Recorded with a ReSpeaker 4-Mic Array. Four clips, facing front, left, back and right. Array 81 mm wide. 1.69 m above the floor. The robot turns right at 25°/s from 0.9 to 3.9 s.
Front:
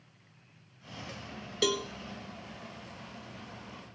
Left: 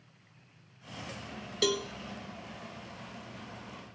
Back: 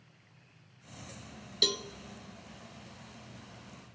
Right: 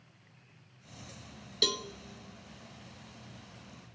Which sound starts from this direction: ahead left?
A cowbell, at 1.6 s.